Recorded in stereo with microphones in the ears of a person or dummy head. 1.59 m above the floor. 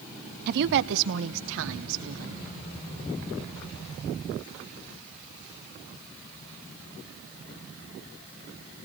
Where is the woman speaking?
50° right (ahead or behind), 0.6 m; by 2.5 s 80° right, 3 m.